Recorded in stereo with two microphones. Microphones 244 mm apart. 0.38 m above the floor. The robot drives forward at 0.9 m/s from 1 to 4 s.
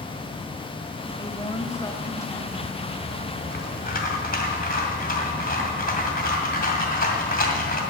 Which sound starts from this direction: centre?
A woman speaking, at 1.2 s.